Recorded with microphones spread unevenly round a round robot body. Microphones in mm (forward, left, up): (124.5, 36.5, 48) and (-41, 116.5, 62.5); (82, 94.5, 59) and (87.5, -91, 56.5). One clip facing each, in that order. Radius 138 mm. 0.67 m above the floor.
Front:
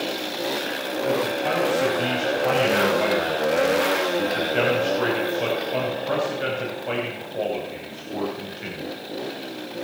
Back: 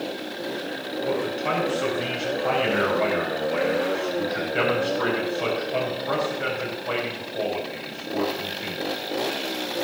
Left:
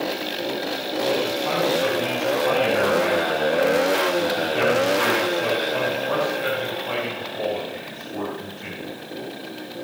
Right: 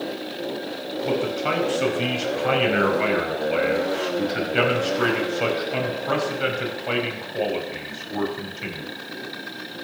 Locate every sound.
1.1 s a man speaking: 95° right, 5 m